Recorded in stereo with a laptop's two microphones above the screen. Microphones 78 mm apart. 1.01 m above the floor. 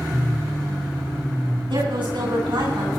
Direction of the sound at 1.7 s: 80° right.